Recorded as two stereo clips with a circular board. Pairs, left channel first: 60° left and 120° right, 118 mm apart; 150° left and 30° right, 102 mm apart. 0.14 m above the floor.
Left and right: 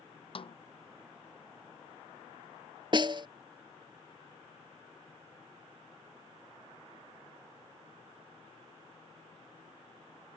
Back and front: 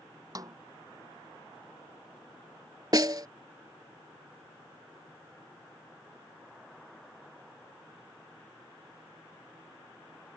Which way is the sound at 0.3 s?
20° left.